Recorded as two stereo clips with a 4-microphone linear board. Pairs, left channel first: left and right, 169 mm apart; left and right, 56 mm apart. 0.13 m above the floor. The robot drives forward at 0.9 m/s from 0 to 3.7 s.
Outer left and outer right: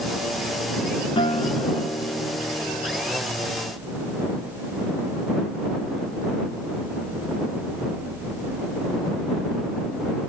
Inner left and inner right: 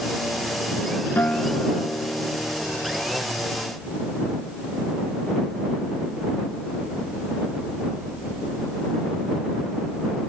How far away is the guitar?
About 0.8 m.